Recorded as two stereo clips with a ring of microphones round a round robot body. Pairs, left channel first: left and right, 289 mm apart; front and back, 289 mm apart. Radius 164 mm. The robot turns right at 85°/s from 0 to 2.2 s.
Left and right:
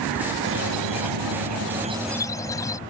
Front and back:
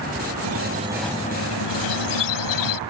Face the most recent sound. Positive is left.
turn(degrees=10)